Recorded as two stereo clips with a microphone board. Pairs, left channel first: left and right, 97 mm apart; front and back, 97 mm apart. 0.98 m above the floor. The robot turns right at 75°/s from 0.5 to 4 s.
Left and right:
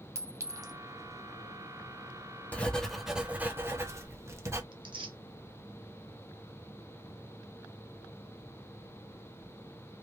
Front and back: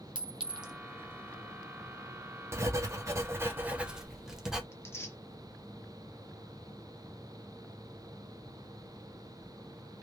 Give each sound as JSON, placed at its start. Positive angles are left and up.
{"t": 0.1, "sound": "a clink", "azimuth_deg": -150, "distance_m": 0.5}
{"t": 2.5, "sound": "writing", "azimuth_deg": 150, "distance_m": 0.7}
{"t": 4.7, "sound": "tearing paper", "azimuth_deg": -60, "distance_m": 0.6}